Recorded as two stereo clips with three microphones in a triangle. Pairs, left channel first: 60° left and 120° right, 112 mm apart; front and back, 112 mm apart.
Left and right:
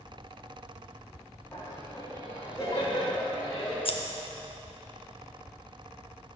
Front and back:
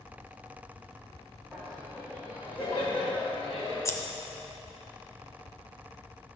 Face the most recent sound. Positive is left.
turn(degrees=60)